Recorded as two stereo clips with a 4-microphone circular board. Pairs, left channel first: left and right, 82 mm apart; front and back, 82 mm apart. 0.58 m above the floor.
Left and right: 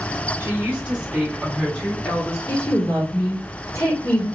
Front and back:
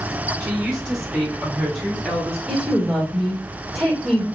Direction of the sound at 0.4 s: 105° right.